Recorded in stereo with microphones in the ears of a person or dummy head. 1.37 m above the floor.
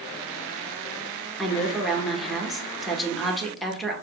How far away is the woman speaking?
About 1.0 m.